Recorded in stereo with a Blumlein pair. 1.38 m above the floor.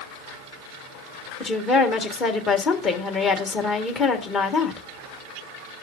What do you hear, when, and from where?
1.4 s a woman speaking: 25° left, 1.6 m